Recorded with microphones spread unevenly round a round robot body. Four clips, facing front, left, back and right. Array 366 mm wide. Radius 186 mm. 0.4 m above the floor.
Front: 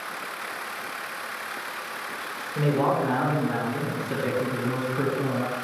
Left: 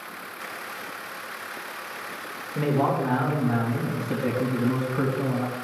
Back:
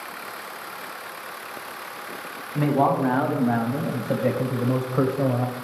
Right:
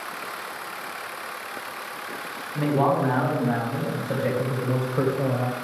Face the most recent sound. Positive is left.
turn(degrees=-150)